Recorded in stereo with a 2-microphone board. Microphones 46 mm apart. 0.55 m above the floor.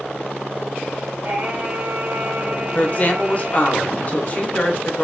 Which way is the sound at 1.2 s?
40° right (ahead or behind).